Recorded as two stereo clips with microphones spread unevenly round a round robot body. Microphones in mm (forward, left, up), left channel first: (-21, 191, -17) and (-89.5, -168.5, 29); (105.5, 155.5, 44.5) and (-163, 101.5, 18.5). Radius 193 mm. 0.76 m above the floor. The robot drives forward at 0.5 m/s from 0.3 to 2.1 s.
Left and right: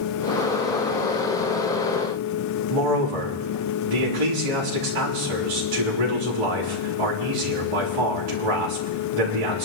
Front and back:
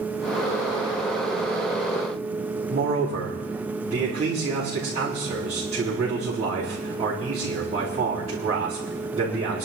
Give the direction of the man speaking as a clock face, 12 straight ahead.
3 o'clock.